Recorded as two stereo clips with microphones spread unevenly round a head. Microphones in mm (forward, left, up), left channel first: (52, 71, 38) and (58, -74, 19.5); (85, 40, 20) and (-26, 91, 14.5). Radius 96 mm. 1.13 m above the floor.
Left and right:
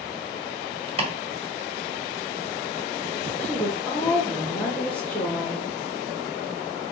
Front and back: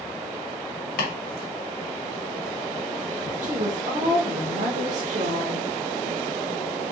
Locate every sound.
1.0 s chopping: 40° right, 2.0 m
3.4 s a woman speaking: straight behind, 1.4 m